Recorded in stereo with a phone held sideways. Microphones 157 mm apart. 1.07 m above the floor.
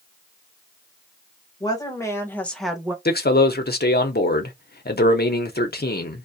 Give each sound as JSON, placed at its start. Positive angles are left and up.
{"t": 1.6, "sound": "a woman speaking", "side_deg": 25, "distance_m": 1.3}
{"t": 3.0, "sound": "a man speaking", "side_deg": 70, "distance_m": 0.7}